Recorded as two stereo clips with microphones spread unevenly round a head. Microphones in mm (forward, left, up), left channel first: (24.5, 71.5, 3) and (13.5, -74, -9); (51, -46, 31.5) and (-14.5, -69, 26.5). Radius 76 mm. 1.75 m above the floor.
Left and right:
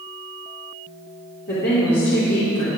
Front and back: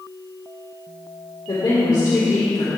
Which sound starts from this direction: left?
A woman speaking, at 1.5 s.